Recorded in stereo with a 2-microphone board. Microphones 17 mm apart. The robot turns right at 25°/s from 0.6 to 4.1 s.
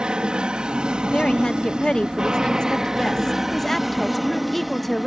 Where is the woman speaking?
95° left; by 5.1 s 170° left.